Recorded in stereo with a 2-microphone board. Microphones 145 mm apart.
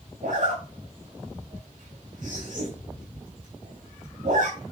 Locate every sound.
0.2 s a zipper: 70° right (ahead or behind), 4.5 m